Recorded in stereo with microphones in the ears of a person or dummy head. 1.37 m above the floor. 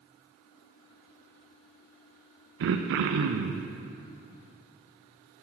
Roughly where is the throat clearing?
Right.